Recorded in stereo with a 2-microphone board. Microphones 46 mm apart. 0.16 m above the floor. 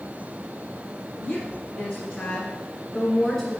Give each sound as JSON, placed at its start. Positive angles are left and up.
{"t": 1.1, "sound": "a woman speaking", "side_deg": 35, "distance_m": 2.5}